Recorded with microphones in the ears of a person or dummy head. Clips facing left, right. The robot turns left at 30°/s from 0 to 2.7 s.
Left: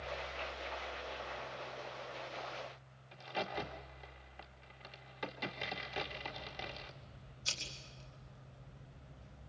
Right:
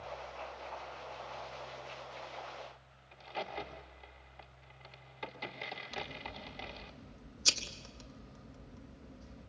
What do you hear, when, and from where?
3.1 s a crack: 10° left (ahead or behind), 1.8 m
5.9 s scissors: 65° right (ahead or behind), 4 m